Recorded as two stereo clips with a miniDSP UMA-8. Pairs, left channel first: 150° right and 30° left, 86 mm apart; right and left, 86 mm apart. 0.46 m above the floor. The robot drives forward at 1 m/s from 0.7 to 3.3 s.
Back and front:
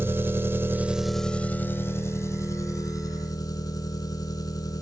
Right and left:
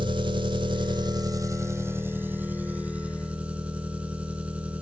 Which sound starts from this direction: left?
An engine running, at 0.0 s.